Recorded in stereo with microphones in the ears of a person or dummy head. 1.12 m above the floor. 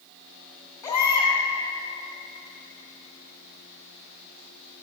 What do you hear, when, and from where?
0.8 s a baby crying: 25° left (ahead or behind), 2 m